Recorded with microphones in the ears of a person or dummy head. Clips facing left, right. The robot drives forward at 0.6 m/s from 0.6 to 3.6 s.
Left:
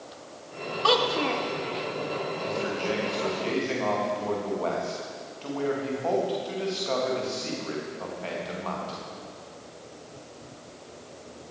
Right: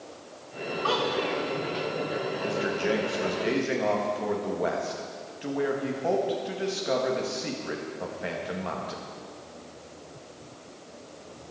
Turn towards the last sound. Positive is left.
turn(degrees=-10)  # may be behind; listen again after turning